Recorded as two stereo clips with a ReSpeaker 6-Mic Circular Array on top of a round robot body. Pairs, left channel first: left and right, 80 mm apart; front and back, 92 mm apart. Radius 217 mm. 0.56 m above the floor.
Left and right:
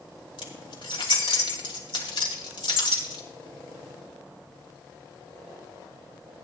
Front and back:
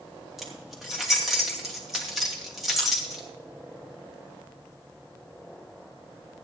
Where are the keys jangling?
90° left, 2.5 m.